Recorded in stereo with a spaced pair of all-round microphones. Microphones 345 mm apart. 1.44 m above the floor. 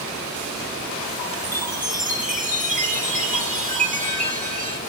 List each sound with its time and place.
1.4 s a chime: 25° right (ahead or behind), 1.9 m